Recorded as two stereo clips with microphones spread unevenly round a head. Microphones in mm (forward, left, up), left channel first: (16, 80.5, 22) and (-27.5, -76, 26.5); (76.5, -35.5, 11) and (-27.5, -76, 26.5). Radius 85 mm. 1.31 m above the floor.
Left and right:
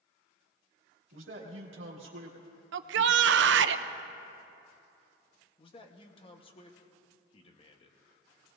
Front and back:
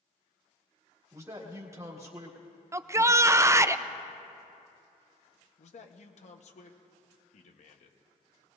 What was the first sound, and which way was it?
A man speaking, 95° right.